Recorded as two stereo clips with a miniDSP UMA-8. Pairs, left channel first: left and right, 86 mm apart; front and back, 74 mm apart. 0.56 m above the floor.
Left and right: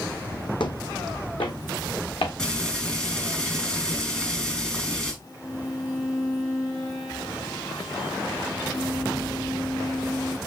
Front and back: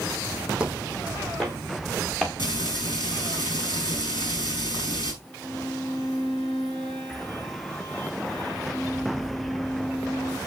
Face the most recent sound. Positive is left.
turn(degrees=70)